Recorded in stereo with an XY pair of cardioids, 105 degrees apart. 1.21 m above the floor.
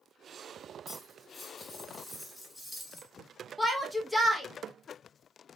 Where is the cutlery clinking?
10° left, 0.9 m.